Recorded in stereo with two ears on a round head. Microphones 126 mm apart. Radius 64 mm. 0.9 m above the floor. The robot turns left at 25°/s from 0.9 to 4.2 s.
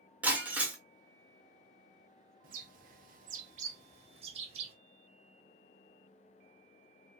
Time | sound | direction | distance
0.2 | breaking glass | 10° right (ahead or behind) | 0.9 m
2.4 | a bird | 65° right (ahead or behind) | 0.7 m